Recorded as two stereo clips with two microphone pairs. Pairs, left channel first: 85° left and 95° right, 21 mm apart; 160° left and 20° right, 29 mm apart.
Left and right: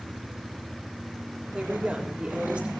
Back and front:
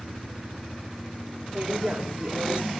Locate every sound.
1.5 s a woman speaking: 70° right, 5 m